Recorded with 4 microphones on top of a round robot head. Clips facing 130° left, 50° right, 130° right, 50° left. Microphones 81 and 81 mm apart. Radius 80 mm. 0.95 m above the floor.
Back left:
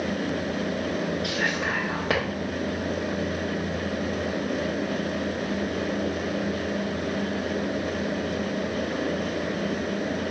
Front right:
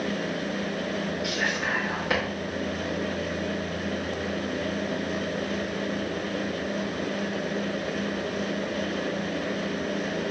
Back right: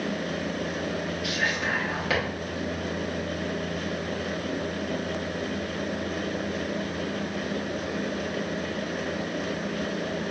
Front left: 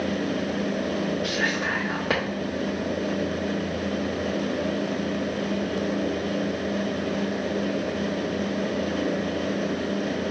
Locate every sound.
1.2 s whispering: 95° left, 1.1 m